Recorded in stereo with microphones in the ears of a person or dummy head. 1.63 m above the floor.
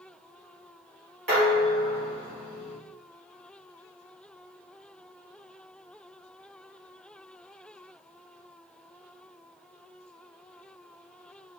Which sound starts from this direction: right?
Dishes clattering, at 1.3 s.